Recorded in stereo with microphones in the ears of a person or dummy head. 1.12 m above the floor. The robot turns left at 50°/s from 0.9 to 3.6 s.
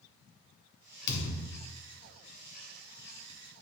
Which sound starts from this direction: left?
A thud, at 1.1 s.